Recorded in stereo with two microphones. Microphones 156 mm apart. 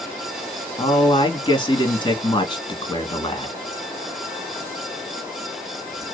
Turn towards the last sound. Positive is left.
turn(degrees=30)  # may be behind; listen again after turning